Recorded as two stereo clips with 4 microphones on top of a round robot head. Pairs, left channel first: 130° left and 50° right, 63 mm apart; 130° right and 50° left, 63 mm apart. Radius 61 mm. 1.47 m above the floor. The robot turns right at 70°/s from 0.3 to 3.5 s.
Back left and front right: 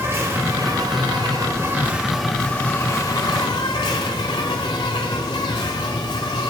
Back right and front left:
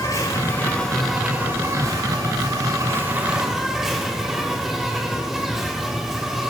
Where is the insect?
95° right, 1.2 m; by 6.5 s 130° left, 1.2 m.